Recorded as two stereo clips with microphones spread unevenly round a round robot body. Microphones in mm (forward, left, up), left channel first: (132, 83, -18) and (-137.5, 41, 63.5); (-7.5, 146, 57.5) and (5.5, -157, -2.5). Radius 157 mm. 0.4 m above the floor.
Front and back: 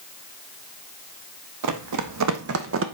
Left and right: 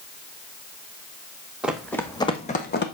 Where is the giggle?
No giggle in this recording.